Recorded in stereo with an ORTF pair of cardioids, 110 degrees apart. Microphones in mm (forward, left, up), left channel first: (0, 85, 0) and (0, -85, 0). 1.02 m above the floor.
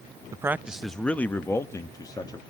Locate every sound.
0.3 s a man speaking: 20° right, 0.7 m; by 2.4 s 25° left, 1.8 m